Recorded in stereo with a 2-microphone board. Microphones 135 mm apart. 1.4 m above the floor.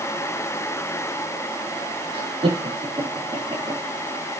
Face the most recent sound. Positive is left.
turn(degrees=-35)  # may be behind; listen again after turning